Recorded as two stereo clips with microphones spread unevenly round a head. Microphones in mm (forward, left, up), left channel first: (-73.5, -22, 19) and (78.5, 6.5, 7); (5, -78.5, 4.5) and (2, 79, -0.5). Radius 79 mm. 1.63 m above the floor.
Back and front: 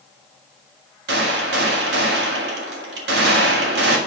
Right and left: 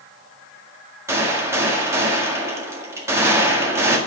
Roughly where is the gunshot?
Ahead.